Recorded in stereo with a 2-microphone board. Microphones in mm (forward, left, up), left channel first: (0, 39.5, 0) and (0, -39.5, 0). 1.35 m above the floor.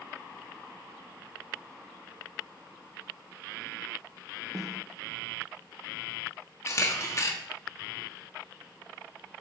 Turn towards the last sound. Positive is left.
turn(degrees=40)  # may be behind; listen again after turning